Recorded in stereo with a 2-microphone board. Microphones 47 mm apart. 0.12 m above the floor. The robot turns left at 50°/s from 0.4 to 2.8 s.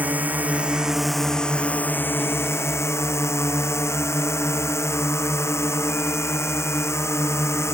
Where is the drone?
145° right; by 7.7 s 95° left.